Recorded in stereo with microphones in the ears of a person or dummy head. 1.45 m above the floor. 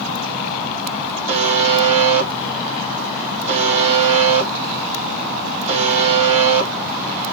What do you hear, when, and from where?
1.3 s a buzzer: 35° right (ahead or behind), 1.5 m